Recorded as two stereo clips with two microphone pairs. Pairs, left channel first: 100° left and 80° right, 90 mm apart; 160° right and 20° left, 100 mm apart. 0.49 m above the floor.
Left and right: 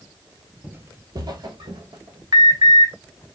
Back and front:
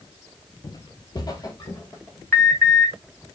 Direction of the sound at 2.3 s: 100° right.